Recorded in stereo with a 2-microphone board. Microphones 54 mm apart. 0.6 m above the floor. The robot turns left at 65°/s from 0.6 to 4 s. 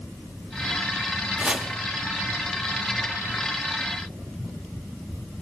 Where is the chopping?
20° right (ahead or behind), 0.9 m.